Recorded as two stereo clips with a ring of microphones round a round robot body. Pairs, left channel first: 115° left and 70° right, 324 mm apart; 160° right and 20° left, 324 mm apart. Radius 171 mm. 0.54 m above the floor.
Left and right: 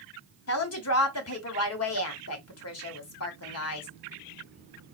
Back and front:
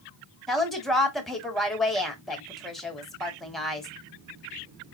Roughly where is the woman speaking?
Behind left.